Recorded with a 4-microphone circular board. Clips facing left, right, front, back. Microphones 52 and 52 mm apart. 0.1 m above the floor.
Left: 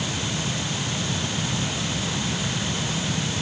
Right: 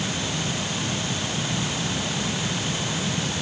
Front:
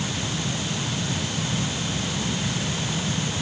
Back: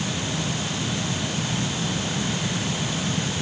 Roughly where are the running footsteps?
No running footsteps in this recording.